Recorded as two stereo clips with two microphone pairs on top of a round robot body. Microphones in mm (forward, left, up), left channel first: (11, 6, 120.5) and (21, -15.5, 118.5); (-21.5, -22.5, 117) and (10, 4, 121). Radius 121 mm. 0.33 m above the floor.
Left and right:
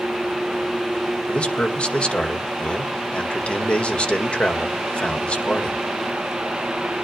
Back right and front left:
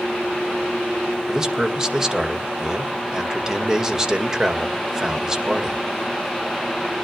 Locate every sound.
1.3 s a man speaking: 120° left, 1.9 m